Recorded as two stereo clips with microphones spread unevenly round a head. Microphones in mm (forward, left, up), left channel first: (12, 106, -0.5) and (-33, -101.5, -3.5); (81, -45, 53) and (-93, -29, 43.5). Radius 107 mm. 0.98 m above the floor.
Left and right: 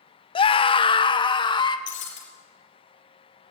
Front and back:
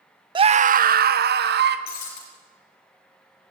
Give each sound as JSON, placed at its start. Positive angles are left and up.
{"t": 0.3, "sound": "a scream", "azimuth_deg": 130, "distance_m": 0.5}
{"t": 1.9, "sound": "breaking glass", "azimuth_deg": 40, "distance_m": 5.0}